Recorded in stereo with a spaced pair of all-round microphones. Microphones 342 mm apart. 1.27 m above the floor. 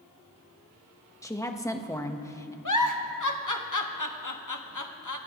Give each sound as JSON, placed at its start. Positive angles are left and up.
{"t": 1.2, "sound": "a woman speaking", "side_deg": 10, "distance_m": 1.2}
{"t": 2.6, "sound": "a giggle", "side_deg": 60, "distance_m": 1.2}